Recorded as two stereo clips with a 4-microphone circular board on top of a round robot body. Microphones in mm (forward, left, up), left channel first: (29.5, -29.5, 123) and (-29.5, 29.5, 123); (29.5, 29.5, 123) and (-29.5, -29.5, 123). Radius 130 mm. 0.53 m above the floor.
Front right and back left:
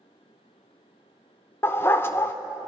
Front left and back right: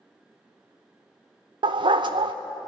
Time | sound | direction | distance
1.6 | a dog barking | 110° right | 0.5 m